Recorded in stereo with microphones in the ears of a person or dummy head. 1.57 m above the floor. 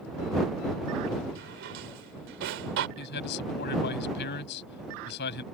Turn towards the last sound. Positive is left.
turn(degrees=60)  # may be behind; listen again after turning